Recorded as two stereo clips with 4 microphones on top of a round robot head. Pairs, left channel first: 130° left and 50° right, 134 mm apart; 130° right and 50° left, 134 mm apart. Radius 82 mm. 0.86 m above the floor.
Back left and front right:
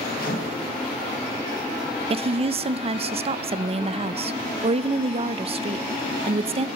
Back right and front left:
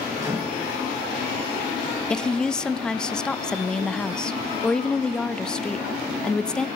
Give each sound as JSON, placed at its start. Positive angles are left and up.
{"t": 0.2, "sound": "a microwave", "azimuth_deg": 120, "distance_m": 4.5}
{"t": 2.1, "sound": "a woman speaking", "azimuth_deg": -50, "distance_m": 0.5}